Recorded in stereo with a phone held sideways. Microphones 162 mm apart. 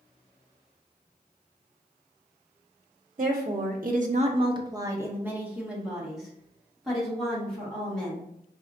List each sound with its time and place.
3.2 s a woman speaking: 55° right (ahead or behind), 0.7 m; by 8.3 s 5° left (ahead or behind), 3 m